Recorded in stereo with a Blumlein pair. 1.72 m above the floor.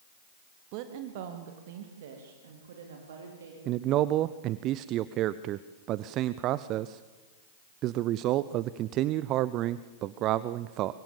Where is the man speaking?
35° right, 0.7 m.